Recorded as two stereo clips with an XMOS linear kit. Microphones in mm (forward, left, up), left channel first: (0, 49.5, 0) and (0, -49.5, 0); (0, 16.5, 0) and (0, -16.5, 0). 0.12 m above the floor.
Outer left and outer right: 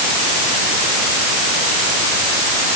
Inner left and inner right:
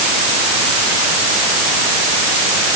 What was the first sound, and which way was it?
Only background noise.